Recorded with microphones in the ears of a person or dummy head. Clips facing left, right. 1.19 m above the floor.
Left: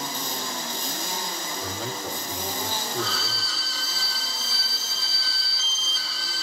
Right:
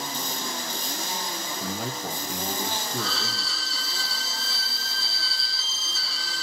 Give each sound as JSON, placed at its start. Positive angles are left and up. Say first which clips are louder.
{"t": 1.6, "sound": "a man speaking", "louder": "right 1 dB", "side_deg": -45, "distance_m": 2.0}
{"t": 3.0, "sound": "a violin", "louder": "left 1 dB", "side_deg": -80, "distance_m": 2.5}